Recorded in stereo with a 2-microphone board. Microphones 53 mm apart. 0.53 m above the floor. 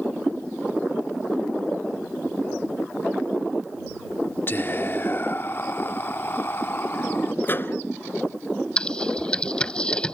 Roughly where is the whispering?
Left.